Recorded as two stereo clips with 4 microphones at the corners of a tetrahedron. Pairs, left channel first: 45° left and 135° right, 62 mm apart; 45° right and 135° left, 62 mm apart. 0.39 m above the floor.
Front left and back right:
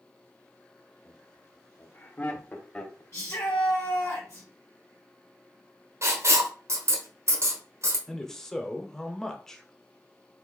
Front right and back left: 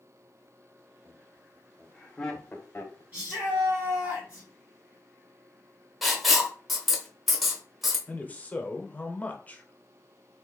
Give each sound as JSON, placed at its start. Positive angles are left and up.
{"t": 1.1, "sound": "laughter", "azimuth_deg": 80, "distance_m": 1.3}
{"t": 3.1, "sound": "a shout", "azimuth_deg": 80, "distance_m": 1.7}
{"t": 6.0, "sound": "writing", "azimuth_deg": -135, "distance_m": 1.0}
{"t": 8.1, "sound": "a man speaking", "azimuth_deg": -30, "distance_m": 0.8}